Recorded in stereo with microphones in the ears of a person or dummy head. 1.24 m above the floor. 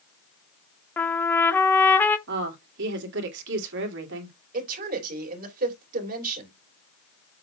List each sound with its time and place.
1.0 s a trumpet: 5° left (ahead or behind), 0.6 m
2.3 s a woman speaking: 65° right (ahead or behind), 2.5 m
4.5 s a woman speaking: 45° right (ahead or behind), 3 m